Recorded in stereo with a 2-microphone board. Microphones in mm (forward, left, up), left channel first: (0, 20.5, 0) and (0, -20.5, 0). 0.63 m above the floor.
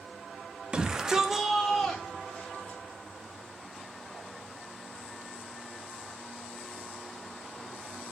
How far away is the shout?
About 1.0 m.